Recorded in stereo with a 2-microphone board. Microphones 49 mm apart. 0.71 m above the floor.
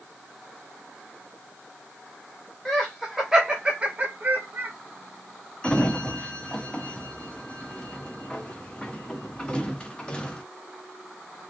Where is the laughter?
10° left (ahead or behind), 1.1 m; by 4.7 s 45° right (ahead or behind), 1.4 m.